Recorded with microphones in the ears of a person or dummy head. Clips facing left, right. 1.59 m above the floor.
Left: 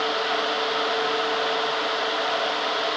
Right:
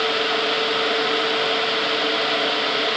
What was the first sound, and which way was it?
Only background noise.